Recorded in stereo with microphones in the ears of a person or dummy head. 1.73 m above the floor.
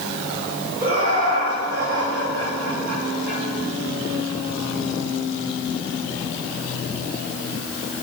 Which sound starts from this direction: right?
Laughter, at 0.8 s.